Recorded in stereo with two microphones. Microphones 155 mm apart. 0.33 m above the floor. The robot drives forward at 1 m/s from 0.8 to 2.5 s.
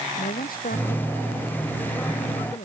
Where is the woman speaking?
65° left (ahead or behind); by 2.6 s 60° left (ahead or behind).